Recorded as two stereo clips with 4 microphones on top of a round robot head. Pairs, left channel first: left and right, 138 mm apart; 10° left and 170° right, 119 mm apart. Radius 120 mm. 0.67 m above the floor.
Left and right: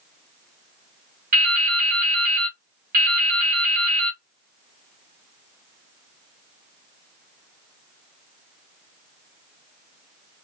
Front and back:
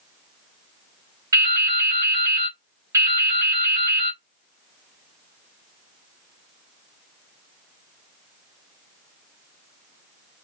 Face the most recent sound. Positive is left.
turn(degrees=-105)